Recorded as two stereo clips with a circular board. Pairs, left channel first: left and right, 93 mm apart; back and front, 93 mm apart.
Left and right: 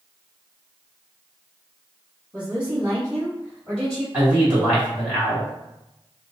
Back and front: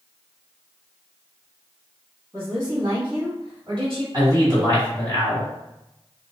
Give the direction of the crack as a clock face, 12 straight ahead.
No crack in this recording.